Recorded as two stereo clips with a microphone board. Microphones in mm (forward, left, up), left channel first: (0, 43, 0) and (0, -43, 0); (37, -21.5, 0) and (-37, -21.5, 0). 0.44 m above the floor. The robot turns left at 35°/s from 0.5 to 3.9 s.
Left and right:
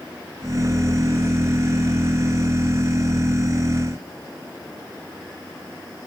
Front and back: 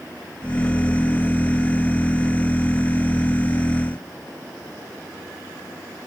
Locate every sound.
Only background noise.